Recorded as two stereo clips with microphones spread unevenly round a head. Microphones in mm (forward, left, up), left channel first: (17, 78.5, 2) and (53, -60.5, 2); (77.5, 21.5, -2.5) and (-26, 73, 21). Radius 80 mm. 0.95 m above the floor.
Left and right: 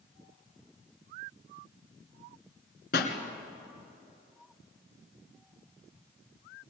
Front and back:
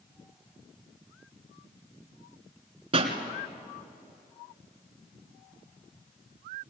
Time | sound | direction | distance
2.9 | a pop | 125° left | 2 m